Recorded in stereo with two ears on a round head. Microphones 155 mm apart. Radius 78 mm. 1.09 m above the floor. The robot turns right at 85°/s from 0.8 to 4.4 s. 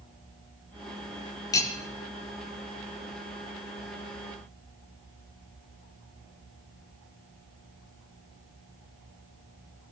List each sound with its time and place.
1.5 s cutlery clinking: 20° left (ahead or behind), 1.5 m; by 1.7 s 5° left (ahead or behind), 1.5 m